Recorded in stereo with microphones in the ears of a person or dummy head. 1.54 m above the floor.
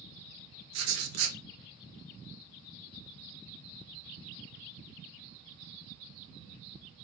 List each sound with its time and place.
0.7 s writing: 80° right, 0.6 m